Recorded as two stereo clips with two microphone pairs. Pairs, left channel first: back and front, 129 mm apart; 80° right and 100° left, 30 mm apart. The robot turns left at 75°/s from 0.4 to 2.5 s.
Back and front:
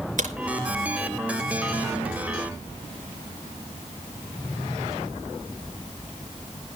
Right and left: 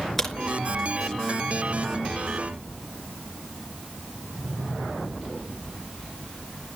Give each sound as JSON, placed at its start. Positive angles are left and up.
{"t": 0.2, "sound": "a crack", "azimuth_deg": 0, "distance_m": 4.0}